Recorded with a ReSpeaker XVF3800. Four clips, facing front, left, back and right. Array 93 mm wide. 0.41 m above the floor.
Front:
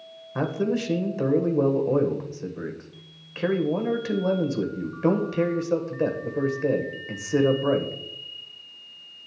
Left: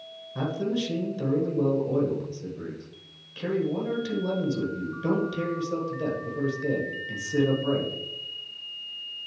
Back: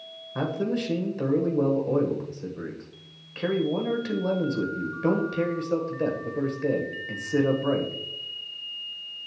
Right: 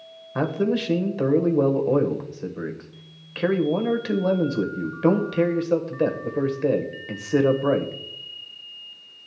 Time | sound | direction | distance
0.3 | a man speaking | 75° right | 1.4 m